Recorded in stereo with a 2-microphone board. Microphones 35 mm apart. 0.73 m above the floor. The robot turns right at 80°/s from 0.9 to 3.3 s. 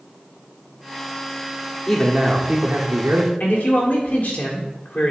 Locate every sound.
1.9 s a man speaking: 160° left, 1.5 m; by 3.3 s 85° right, 1.5 m
3.4 s a man speaking: 50° left (ahead or behind), 1.9 m